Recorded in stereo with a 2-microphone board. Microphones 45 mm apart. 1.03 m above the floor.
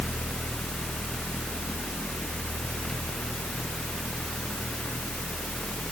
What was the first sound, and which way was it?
Only background noise.